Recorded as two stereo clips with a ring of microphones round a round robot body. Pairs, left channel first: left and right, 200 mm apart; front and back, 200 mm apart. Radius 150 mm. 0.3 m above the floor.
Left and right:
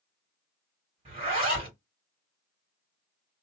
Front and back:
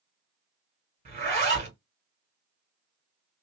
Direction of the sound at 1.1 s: 145° right.